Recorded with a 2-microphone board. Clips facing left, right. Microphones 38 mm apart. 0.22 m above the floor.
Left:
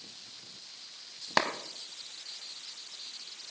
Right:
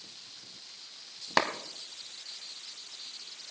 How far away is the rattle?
No rattle in this recording.